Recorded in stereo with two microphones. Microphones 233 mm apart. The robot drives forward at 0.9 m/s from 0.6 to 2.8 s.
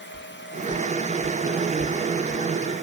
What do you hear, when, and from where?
0.1 s footsteps: 40° left (ahead or behind); by 2.4 s 15° left (ahead or behind)